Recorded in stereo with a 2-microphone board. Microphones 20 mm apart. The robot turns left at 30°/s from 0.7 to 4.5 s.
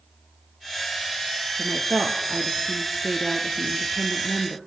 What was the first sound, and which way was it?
A woman speaking, 40° right.